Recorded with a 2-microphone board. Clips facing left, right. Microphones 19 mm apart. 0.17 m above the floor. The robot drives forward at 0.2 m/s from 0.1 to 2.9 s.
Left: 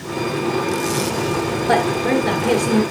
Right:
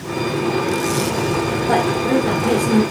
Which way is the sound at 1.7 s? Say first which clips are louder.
Even; 35° left (ahead or behind).